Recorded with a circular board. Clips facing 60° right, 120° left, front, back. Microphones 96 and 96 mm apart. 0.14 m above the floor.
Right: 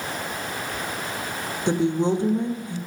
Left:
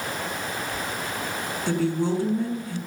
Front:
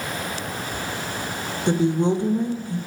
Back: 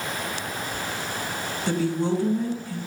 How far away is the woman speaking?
About 1.1 m.